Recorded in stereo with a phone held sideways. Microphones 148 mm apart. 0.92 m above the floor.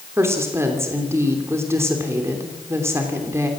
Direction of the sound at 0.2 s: 15° right (ahead or behind).